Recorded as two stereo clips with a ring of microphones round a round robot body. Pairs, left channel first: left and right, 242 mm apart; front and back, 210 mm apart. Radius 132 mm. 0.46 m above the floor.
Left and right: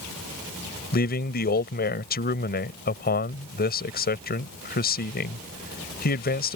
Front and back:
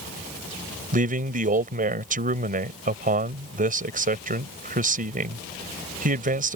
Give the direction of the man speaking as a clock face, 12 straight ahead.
7 o'clock.